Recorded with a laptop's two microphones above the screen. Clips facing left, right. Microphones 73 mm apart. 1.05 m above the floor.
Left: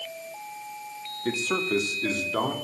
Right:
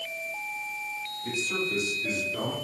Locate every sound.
1.2 s a man speaking: 75° left (ahead or behind), 1.9 m; by 2.5 s 70° left (ahead or behind), 2.5 m